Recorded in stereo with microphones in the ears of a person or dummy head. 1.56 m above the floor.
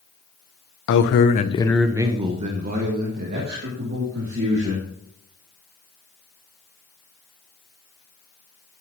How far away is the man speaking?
About 0.9 m.